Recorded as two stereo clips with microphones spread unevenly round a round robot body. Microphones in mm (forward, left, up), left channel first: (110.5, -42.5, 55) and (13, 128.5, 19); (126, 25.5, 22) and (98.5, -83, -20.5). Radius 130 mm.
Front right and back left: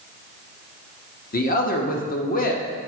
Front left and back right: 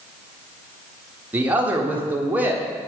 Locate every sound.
1.3 s a man speaking: 85° right, 1.0 m